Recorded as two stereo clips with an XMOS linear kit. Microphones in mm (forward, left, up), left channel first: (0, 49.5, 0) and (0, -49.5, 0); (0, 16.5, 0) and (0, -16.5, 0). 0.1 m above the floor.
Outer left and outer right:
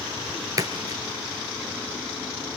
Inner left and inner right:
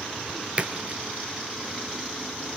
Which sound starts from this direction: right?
A splash, at 0.6 s.